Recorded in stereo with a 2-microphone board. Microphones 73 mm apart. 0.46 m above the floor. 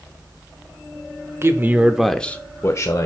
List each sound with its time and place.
1.4 s a man speaking: 40° right (ahead or behind), 1.1 m; by 3.1 s 55° left (ahead or behind), 1.3 m